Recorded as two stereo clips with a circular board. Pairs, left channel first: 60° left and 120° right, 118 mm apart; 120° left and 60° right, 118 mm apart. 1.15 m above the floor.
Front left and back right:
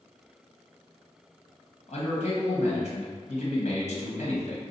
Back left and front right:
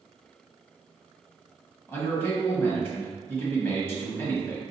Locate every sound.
1.9 s a man speaking: 55° left, 1.1 m